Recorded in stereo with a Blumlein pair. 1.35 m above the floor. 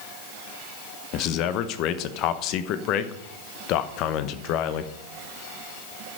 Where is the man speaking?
40° left, 1.0 m.